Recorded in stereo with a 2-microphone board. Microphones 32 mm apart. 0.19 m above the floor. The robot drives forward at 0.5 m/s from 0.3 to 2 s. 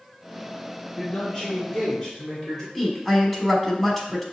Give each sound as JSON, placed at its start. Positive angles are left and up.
{"t": 1.0, "sound": "a man speaking", "side_deg": 25, "distance_m": 1.3}
{"t": 2.8, "sound": "a woman speaking", "side_deg": 5, "distance_m": 1.2}